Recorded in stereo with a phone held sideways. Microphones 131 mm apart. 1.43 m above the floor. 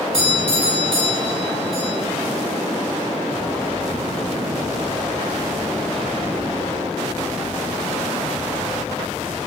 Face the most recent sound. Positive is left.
turn(degrees=-45)  # may be behind; listen again after turning